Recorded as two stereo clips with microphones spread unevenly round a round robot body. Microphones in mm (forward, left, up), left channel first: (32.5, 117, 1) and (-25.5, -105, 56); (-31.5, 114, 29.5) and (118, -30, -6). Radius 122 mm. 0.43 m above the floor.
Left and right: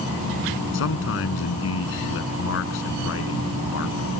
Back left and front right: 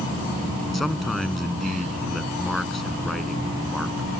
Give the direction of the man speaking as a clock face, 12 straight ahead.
10 o'clock.